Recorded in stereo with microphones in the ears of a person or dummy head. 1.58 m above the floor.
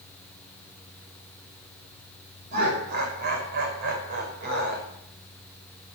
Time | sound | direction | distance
2.5 | laughter | 50° right (ahead or behind) | 5.5 m